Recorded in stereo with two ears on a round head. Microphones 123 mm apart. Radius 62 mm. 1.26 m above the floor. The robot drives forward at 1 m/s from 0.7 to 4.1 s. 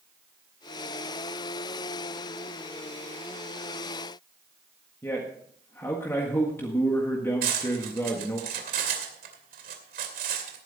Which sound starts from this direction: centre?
A man speaking, at 5.0 s.